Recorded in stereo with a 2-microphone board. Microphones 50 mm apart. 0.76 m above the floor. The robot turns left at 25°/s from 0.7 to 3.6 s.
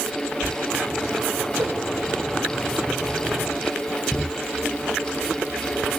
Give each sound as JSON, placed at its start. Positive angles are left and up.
{"t": 1.6, "sound": "a whoosh", "side_deg": -50, "distance_m": 2.5}